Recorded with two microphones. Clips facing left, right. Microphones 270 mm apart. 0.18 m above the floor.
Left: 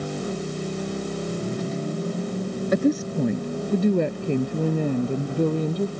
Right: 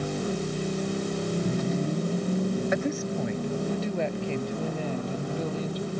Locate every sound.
2.7 s a woman speaking: 45° left (ahead or behind); by 5.9 s 60° left (ahead or behind)